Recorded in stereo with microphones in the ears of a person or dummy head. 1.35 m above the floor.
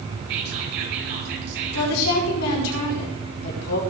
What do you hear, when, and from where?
0.3 s whispering: 60° right (ahead or behind), 7 m
1.7 s a woman speaking: 85° left, 5 m